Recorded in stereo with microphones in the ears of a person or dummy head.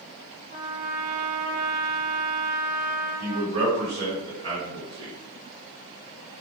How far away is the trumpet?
About 1.2 m.